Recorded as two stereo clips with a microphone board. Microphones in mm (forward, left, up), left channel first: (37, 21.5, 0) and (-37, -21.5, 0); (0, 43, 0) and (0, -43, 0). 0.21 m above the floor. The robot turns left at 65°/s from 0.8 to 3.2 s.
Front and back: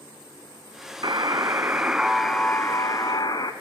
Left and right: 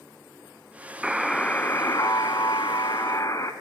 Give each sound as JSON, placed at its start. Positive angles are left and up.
{"t": 1.0, "sound": "a buzzer", "azimuth_deg": -165, "distance_m": 1.0}